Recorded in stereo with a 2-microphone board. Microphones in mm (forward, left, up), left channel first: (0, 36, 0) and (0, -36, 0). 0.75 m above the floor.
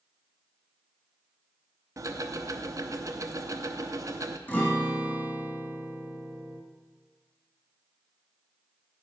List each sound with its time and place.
2.0 s ticking: 50° right (ahead or behind), 0.6 m
4.5 s a guitar: 25° left (ahead or behind), 1.5 m